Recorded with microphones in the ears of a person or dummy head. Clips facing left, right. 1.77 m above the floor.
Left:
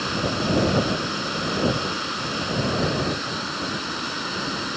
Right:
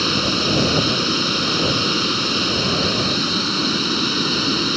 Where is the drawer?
I don't hear a drawer.